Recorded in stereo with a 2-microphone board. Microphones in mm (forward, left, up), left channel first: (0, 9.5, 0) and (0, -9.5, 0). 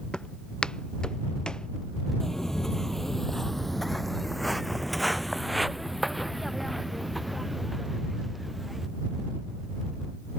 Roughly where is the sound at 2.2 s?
Left.